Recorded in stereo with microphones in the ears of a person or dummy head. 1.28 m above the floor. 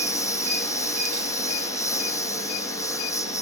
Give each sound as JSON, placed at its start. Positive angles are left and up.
{"t": 0.0, "sound": "a lawn mower", "side_deg": 20}